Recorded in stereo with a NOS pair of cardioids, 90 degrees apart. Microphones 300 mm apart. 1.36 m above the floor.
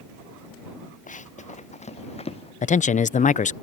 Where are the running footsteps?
25° left; by 2.5 s 20° left.